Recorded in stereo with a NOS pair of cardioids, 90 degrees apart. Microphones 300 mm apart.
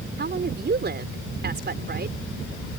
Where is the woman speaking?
35° right.